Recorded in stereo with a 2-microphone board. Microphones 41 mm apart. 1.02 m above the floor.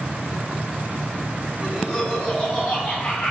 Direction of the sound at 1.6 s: 10° right (ahead or behind).